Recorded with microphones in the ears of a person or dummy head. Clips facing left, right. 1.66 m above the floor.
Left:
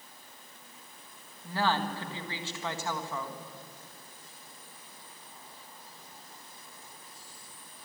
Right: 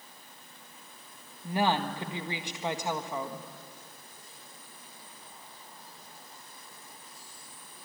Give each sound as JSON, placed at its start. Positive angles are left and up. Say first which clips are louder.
{"t": 1.4, "sound": "a woman speaking", "louder": "right 2 dB", "side_deg": -20, "distance_m": 1.7}